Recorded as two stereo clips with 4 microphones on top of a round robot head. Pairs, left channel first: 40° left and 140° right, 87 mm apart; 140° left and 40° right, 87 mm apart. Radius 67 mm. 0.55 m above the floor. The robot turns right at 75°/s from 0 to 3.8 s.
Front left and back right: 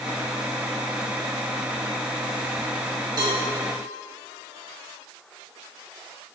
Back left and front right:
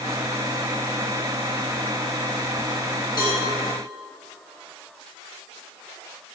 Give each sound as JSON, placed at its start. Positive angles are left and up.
{"t": 3.2, "sound": "a cowbell", "azimuth_deg": 180, "distance_m": 3.5}